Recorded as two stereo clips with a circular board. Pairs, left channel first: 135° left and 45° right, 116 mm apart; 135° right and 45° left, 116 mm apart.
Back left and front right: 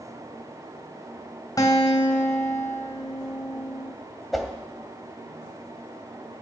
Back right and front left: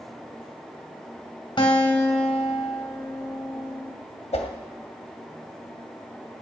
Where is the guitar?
170° right, 2.5 m.